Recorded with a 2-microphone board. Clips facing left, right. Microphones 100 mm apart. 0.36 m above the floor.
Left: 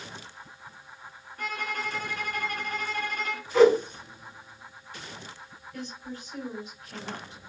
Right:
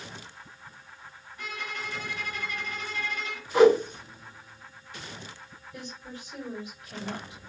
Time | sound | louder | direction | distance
1.4 | a violin | left 5 dB | 50° left (ahead or behind) | 0.6 m
3.5 | a whoosh | even | 15° right (ahead or behind) | 1.8 m
5.7 | a woman speaking | left 3 dB | 10° right (ahead or behind) | 1.4 m